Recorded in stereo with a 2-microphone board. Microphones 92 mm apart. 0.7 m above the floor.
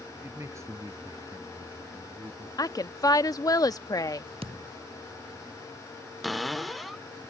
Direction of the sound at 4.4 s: 85° right.